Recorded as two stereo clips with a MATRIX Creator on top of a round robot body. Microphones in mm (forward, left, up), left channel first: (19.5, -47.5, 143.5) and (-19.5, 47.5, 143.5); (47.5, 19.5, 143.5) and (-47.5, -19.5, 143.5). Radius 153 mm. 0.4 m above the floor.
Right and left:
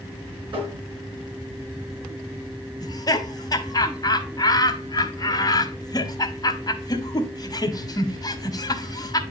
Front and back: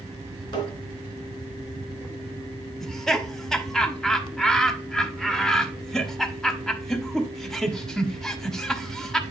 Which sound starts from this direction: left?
Tapping, at 0.5 s.